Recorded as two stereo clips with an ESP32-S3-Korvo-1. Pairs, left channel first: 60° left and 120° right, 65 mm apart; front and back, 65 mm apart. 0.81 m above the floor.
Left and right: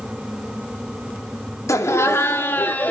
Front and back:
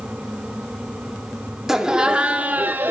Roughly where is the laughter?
Left.